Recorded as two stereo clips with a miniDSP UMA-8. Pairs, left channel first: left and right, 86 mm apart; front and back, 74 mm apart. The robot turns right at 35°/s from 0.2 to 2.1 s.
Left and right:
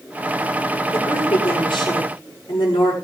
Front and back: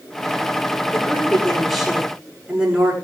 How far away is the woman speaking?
About 7.5 m.